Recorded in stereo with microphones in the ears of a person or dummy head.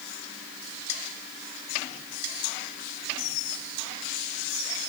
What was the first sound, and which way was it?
Only background noise.